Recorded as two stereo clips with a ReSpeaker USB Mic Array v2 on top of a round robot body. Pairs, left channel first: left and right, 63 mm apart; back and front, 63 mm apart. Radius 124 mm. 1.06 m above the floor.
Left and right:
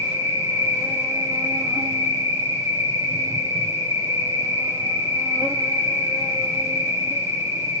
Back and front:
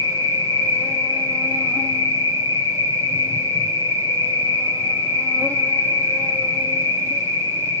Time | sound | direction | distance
0.0 | an insect | 130° right | 1.5 m